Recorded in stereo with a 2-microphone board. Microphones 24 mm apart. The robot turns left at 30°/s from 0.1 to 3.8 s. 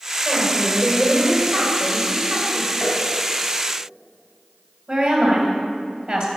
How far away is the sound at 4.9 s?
About 3 m.